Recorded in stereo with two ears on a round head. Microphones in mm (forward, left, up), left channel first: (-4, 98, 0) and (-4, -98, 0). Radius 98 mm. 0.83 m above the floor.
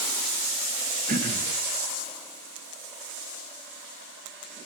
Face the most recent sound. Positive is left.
turn(degrees=-35)  # may be behind; listen again after turning